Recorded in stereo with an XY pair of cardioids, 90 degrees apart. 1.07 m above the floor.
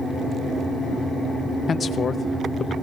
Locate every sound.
1.7 s a man speaking: 50° left, 0.8 m